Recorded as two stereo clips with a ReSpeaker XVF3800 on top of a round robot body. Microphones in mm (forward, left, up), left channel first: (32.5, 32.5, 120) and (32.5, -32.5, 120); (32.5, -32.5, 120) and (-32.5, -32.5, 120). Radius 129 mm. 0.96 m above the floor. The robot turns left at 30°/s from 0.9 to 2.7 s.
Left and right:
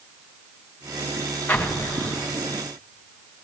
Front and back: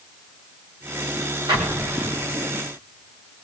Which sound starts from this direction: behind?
An explosion, at 1.5 s.